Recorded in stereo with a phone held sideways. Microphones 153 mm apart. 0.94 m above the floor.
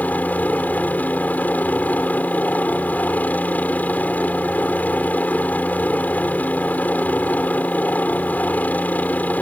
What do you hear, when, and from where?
0.0 s a helicopter: 10° left (ahead or behind)